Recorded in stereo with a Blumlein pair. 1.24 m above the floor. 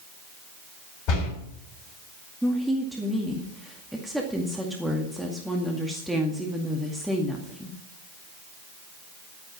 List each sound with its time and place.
1.1 s a door slam: 40° left, 6 m
2.4 s a woman speaking: 5° right, 2 m